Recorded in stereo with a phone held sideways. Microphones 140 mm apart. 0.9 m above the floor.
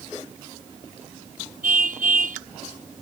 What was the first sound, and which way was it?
A car horn, 85° right.